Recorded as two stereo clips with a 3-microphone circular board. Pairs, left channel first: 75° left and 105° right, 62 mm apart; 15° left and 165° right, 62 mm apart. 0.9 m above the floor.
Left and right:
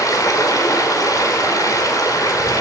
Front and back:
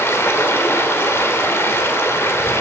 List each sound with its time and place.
0.0 s running water: 60° left, 3 m